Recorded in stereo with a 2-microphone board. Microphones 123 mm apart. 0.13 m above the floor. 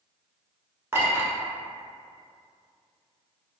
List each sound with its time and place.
0.9 s a clink: 20° right (ahead or behind), 0.8 m